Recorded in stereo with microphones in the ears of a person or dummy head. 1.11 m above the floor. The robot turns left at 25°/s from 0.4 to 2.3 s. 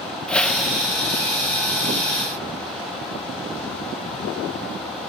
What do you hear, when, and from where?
0.3 s a whoosh: 5° left (ahead or behind), 1.3 m; by 0.9 s 5° right (ahead or behind), 1.3 m